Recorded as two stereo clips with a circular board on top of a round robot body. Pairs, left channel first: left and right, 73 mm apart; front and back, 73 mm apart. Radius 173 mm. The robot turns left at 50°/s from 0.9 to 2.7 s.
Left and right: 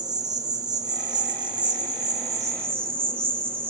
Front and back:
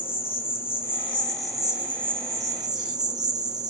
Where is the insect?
60° right, 0.9 m; by 3.7 s 150° right, 0.9 m.